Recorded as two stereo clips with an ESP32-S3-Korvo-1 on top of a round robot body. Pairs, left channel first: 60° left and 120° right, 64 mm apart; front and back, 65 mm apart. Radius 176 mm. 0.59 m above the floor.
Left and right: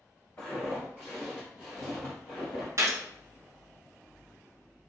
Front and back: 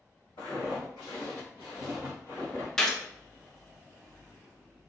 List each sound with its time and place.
0.4 s footsteps: straight ahead, 1.6 m; by 2.7 s 70° left, 0.7 m
2.8 s a gunshot: 85° right, 0.6 m